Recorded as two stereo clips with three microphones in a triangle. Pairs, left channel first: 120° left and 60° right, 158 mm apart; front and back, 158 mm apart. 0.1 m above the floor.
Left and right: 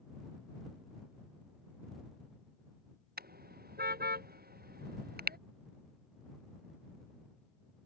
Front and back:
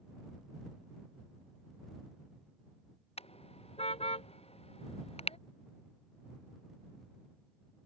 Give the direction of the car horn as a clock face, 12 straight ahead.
2 o'clock.